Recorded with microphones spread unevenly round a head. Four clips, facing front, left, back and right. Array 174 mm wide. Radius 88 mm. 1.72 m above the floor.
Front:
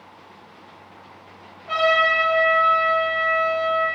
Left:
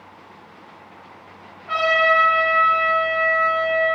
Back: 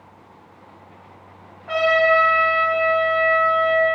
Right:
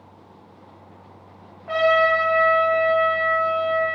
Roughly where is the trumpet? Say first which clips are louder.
Right 1 dB, back 2 dB; behind right.